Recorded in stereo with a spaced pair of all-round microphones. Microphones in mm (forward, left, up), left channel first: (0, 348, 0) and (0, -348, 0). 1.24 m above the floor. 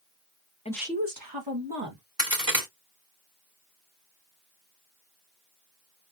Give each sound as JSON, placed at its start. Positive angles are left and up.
{"t": 0.7, "sound": "a woman speaking", "side_deg": 10, "distance_m": 0.9}
{"t": 2.2, "sound": "a crack", "side_deg": -30, "distance_m": 2.5}